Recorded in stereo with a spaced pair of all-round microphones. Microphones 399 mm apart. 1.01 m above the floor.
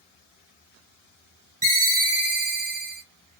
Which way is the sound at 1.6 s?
50° right (ahead or behind).